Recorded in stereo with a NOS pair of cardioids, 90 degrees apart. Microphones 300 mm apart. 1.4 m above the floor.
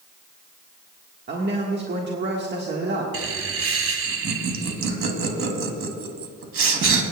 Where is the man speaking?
35° right, 1.5 m.